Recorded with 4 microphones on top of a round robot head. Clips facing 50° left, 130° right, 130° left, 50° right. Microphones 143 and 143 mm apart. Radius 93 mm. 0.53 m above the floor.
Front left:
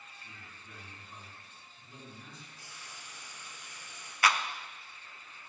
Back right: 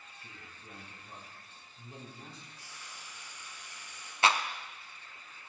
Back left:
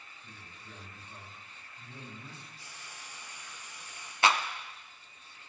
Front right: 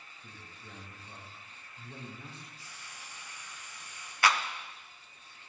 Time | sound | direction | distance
0.2 | a man speaking | 75° right | 5 m
2.6 | frying | 65° left | 4.5 m
4.2 | a clap | straight behind | 0.9 m